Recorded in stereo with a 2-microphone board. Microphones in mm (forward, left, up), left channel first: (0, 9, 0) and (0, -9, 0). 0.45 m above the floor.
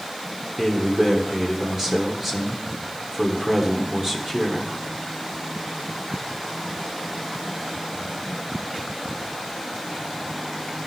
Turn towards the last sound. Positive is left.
turn(degrees=-20)  # may be behind; listen again after turning